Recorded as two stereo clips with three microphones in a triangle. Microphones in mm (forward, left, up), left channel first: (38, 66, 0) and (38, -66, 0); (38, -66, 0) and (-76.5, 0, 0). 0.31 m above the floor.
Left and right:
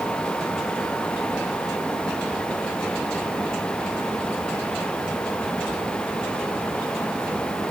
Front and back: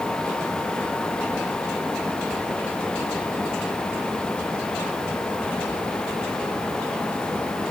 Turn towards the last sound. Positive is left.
No sound to turn to.